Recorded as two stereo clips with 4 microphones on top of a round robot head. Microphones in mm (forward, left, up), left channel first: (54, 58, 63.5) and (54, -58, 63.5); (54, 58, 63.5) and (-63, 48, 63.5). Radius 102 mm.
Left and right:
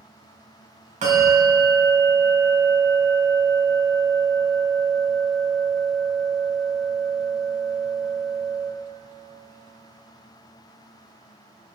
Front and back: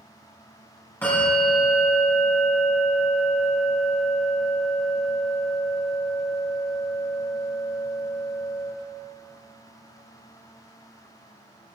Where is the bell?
75° right, 5 m.